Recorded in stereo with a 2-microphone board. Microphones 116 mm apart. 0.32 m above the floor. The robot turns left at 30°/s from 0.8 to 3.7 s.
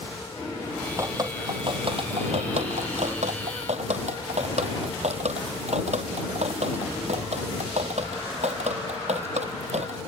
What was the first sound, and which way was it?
Dripping, 25° right (ahead or behind).